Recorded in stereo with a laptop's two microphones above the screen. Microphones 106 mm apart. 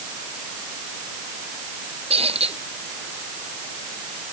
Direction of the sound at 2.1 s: 70° right (ahead or behind).